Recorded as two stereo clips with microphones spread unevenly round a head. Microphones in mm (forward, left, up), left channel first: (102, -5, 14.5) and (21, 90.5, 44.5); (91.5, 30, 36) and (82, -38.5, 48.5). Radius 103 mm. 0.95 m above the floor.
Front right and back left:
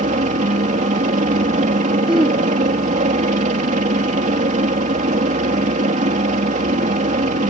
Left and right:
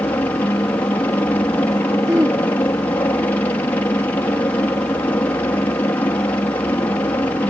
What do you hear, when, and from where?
0.0 s a helicopter: 135° left
2.1 s throat clearing: 160° right